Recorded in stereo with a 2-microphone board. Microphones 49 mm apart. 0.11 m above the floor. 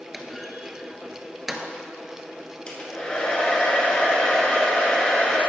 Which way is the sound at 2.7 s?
20° left (ahead or behind).